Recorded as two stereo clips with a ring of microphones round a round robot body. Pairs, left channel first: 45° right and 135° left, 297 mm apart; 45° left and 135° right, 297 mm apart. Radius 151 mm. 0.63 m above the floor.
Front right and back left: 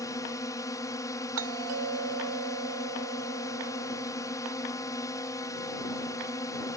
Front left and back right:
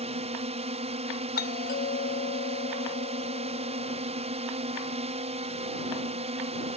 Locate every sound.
0.0 s a drone: 105° right
1.4 s a doorbell: 100° left